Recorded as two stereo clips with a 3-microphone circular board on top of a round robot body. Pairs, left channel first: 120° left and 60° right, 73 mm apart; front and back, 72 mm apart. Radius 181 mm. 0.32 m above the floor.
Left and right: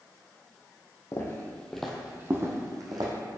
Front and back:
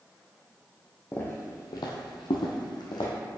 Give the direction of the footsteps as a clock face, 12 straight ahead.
10 o'clock.